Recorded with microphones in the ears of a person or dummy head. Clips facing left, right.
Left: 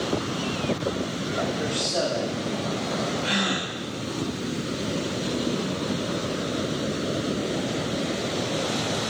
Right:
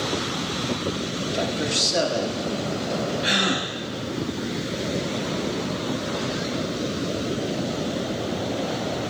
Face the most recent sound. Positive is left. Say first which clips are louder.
# right 2 dB
turn(degrees=-20)  # may be behind; listen again after turning